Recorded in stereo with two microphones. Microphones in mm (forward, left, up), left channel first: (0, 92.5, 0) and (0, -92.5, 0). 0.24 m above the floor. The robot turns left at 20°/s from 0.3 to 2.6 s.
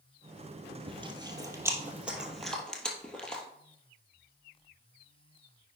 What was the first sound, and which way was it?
Chewing, 30° right (ahead or behind).